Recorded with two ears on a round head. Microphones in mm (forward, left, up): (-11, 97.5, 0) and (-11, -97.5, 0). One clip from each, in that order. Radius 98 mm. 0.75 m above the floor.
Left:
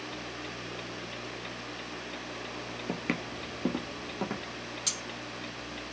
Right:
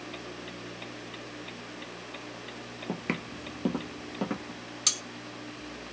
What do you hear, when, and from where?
2.9 s footsteps: 10° left (ahead or behind), 0.7 m; by 4.6 s 10° right (ahead or behind), 2.0 m
4.9 s cutlery clinking: 30° right (ahead or behind), 1.8 m